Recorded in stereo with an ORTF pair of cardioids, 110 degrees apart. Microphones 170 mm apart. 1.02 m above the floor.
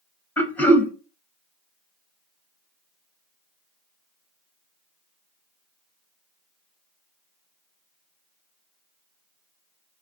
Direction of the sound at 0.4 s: 10° left.